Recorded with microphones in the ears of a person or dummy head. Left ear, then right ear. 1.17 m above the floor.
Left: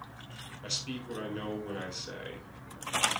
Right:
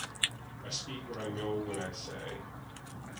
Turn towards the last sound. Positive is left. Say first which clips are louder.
# left 3 dB
turn(degrees=70)  # may be behind; listen again after turning